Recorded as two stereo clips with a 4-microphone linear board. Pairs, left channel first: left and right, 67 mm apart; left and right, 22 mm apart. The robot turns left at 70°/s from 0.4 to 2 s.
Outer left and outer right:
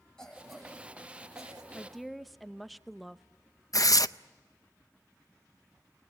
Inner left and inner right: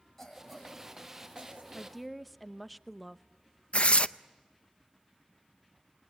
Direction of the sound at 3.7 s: 60° left (ahead or behind).